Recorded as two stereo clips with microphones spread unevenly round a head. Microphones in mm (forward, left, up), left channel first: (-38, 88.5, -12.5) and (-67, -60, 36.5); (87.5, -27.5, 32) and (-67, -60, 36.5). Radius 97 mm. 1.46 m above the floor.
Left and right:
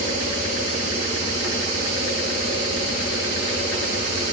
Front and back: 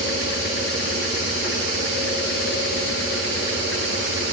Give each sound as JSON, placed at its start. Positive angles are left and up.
{"t": 0.0, "sound": "a fan", "azimuth_deg": 45, "distance_m": 8.5}